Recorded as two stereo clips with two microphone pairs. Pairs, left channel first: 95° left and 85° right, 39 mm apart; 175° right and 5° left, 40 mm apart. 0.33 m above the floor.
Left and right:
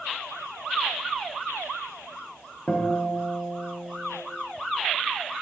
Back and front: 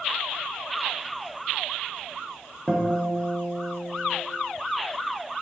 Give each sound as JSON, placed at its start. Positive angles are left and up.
{"t": 2.7, "sound": "a guitar", "azimuth_deg": 80, "distance_m": 0.7}